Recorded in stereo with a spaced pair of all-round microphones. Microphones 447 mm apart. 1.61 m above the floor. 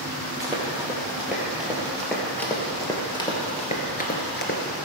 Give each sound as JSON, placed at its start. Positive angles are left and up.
{"t": 0.4, "sound": "running footsteps", "side_deg": -5, "distance_m": 3.5}